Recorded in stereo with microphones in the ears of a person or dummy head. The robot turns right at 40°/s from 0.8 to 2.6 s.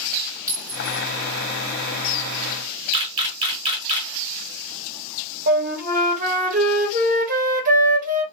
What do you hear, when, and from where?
0.5 s a clink: 15° right (ahead or behind), 1.5 m; by 1.0 s 5° right (ahead or behind), 1.5 m
2.9 s a camera shutter: 25° right (ahead or behind), 1.7 m
5.5 s a flute: 40° right (ahead or behind), 0.9 m